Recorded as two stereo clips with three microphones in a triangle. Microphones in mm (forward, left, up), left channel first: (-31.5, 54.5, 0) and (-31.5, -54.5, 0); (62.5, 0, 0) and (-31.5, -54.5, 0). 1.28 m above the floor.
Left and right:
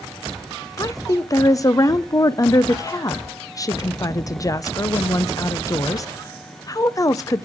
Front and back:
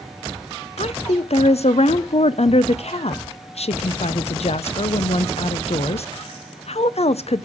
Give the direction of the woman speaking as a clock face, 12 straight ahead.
11 o'clock.